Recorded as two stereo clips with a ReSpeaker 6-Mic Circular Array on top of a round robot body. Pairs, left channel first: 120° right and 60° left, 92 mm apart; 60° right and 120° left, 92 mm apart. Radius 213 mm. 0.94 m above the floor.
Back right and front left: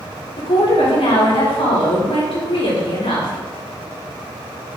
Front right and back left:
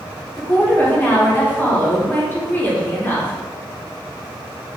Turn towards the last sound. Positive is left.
turn(degrees=-130)